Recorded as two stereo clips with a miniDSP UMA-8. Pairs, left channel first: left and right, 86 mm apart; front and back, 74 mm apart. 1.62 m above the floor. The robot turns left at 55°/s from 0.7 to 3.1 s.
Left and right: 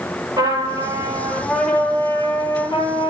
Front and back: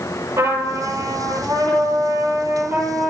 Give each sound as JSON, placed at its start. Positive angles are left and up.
{"t": 0.4, "sound": "a trumpet", "azimuth_deg": -135, "distance_m": 8.5}